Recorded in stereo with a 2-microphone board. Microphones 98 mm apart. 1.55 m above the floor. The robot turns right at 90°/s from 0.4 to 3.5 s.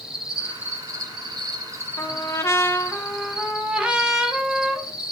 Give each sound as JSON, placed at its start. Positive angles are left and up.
{"t": 0.0, "sound": "an insect", "azimuth_deg": -175, "distance_m": 1.7}
{"t": 2.0, "sound": "a trumpet", "side_deg": 25, "distance_m": 1.1}